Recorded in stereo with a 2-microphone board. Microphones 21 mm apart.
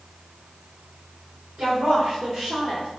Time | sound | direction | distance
1.6 | a woman speaking | 55° right (ahead or behind) | 2 m